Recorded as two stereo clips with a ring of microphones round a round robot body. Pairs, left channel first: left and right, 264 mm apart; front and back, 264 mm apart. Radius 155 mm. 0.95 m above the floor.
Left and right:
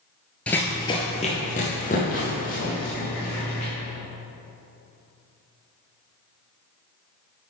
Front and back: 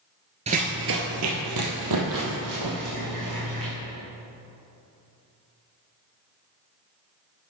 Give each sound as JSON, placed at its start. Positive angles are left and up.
{"t": 0.5, "sound": "running footsteps", "azimuth_deg": 170, "distance_m": 0.9}